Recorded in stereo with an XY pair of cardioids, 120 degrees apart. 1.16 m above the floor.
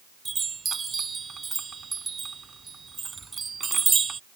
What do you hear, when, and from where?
0.2 s a chime: 30° right